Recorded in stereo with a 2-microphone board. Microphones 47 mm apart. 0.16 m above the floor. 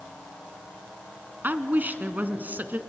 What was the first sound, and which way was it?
A woman speaking, 40° right (ahead or behind).